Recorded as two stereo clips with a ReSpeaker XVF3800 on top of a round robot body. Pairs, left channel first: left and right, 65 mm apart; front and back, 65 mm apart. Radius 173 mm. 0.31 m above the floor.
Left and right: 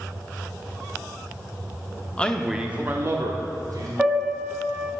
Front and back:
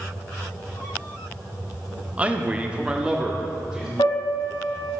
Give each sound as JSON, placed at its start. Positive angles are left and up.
{"t": 2.2, "sound": "a man speaking", "azimuth_deg": 140, "distance_m": 1.2}
{"t": 4.0, "sound": "a piano", "azimuth_deg": -10, "distance_m": 1.2}